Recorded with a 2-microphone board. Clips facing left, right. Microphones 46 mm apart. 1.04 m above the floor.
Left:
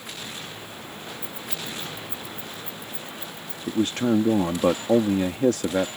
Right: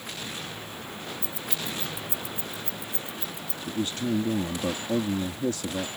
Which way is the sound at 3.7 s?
65° left (ahead or behind).